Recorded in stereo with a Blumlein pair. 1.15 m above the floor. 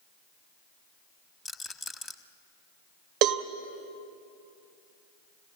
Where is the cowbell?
40° right, 1.0 m.